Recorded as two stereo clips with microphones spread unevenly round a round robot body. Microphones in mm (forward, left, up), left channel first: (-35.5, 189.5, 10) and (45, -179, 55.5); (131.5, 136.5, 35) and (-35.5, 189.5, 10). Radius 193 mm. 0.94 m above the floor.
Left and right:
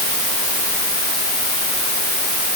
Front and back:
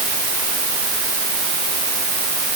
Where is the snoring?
I don't hear snoring.